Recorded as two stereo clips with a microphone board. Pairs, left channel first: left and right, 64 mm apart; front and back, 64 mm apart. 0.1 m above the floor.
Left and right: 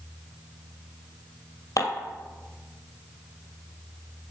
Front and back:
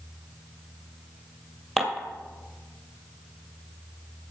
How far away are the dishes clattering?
About 1.7 m.